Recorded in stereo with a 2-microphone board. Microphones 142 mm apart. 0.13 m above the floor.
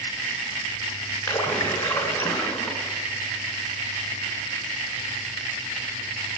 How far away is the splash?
About 1.6 m.